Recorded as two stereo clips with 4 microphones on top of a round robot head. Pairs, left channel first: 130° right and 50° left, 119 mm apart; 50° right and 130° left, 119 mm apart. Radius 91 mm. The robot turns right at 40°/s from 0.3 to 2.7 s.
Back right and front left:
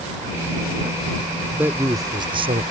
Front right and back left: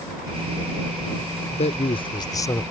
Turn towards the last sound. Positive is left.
turn(degrees=20)